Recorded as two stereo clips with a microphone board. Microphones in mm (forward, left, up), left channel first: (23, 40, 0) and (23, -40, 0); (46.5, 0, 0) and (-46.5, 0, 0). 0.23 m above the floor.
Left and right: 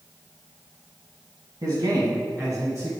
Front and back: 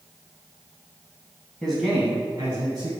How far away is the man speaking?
About 1.4 m.